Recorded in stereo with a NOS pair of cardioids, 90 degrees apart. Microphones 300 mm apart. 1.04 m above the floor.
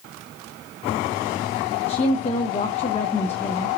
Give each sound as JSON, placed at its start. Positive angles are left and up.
{"t": 1.9, "sound": "a woman speaking", "azimuth_deg": 20, "distance_m": 0.7}